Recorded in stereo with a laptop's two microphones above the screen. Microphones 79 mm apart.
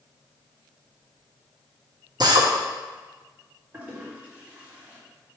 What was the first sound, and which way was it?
A drill, 65° right (ahead or behind).